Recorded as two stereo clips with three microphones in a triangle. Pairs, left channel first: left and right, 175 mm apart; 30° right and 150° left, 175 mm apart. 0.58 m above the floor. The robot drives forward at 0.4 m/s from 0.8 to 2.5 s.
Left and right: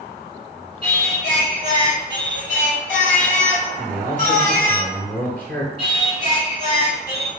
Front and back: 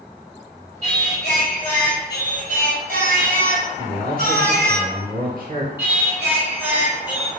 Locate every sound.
0.8 s singing: 110° left, 2 m; by 4.8 s 125° left, 2.5 m
3.8 s a man speaking: 165° left, 1.1 m
5.8 s singing: 75° left, 1.6 m